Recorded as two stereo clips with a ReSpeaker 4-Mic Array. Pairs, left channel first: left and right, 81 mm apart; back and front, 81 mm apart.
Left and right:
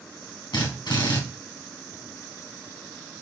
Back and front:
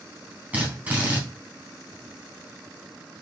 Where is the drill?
70° left, 3.5 m.